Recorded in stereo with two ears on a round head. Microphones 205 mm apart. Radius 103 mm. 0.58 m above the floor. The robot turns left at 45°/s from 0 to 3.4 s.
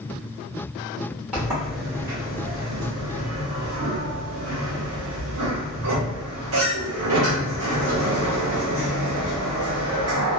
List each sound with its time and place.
1.3 s a sliding door: 5° right (ahead or behind), 1.1 m; by 10.4 s 70° right (ahead or behind), 1.1 m